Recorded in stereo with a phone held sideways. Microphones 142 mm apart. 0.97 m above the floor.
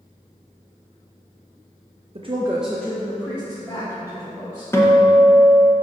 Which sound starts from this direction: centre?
A guitar, at 4.7 s.